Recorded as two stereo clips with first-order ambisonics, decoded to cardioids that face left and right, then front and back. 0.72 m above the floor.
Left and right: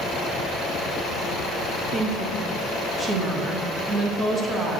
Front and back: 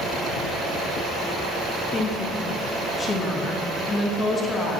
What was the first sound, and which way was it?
A woman speaking, 35° right.